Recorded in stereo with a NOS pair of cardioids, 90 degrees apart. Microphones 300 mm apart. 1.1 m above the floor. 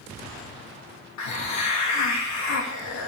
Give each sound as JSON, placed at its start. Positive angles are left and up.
{"t": 1.2, "sound": "a hiss", "azimuth_deg": 65, "distance_m": 1.3}